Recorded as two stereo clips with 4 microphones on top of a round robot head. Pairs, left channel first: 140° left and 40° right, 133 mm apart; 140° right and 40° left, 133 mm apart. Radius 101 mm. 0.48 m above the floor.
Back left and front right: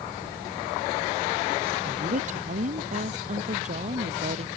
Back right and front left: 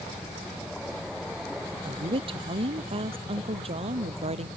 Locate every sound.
1.8 s a woman speaking: 10° right; by 4.5 s straight ahead